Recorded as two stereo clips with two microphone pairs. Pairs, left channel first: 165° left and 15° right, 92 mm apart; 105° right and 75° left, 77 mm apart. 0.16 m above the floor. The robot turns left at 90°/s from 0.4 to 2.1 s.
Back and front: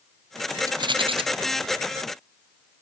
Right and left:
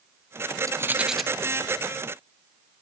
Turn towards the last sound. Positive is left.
turn(degrees=-95)